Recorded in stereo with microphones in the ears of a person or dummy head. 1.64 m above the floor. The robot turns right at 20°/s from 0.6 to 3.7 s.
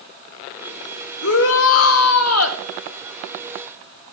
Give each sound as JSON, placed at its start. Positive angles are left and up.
{"t": 1.2, "sound": "a shout", "side_deg": 75, "distance_m": 1.5}